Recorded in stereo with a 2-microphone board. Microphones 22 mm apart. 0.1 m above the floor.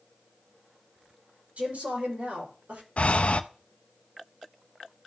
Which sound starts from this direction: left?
Breathing, at 3.0 s.